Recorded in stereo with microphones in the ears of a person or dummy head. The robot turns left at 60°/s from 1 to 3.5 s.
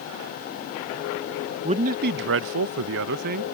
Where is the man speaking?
30° right; by 3.4 s 140° right.